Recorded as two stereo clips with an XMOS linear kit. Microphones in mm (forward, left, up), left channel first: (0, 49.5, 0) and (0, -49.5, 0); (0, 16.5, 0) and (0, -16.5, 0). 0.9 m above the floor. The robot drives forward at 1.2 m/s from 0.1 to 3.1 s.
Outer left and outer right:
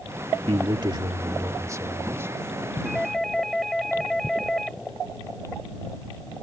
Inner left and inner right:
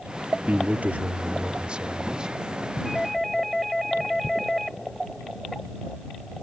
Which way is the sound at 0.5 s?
65° right (ahead or behind).